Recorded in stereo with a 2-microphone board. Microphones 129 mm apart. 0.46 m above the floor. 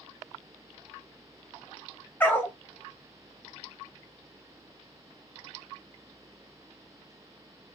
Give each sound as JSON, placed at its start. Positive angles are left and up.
{"t": 2.2, "sound": "a dog barking", "side_deg": 15, "distance_m": 0.7}